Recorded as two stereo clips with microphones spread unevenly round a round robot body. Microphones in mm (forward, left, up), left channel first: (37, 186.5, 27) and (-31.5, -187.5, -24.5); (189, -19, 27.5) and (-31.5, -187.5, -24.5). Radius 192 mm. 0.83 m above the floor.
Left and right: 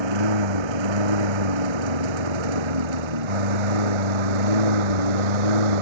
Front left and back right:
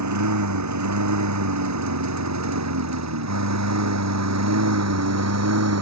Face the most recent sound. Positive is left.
turn(degrees=-110)